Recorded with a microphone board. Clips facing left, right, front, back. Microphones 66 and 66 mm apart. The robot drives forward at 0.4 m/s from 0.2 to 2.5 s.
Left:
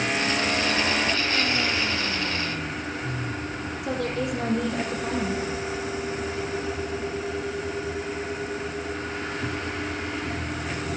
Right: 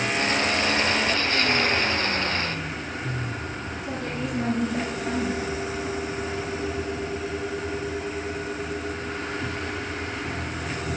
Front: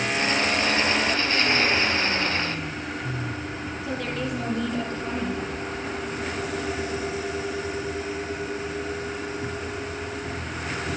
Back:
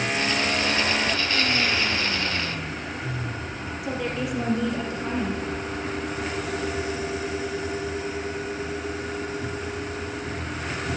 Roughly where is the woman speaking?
Left.